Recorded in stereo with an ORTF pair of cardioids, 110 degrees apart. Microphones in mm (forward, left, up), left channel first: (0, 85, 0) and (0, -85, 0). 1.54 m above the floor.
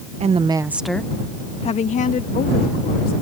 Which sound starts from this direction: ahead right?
A woman speaking, at 0.2 s.